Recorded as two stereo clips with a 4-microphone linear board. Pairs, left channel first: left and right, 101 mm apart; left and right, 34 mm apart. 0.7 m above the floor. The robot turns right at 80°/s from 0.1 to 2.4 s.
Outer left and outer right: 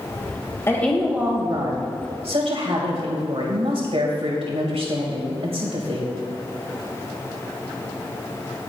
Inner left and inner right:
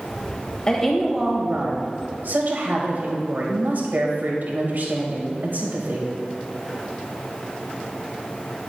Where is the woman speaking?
155° left, 3 m; by 6.1 s 70° right, 3 m.